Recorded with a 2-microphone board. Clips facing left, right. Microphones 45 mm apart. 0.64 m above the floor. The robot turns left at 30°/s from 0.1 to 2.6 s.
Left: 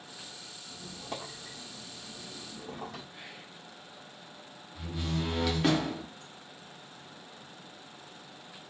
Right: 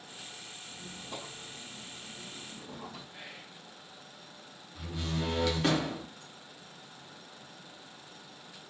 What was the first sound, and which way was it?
A squeak, 125° left.